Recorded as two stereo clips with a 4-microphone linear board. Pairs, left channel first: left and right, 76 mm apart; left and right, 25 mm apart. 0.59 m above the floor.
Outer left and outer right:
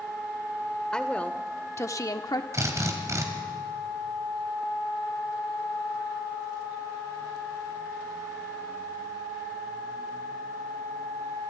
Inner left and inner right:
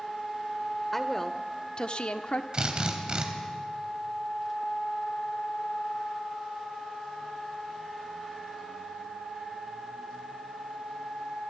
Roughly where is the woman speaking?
Centre.